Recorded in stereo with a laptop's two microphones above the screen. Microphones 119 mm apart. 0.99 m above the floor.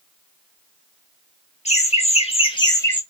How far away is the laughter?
About 1.8 m.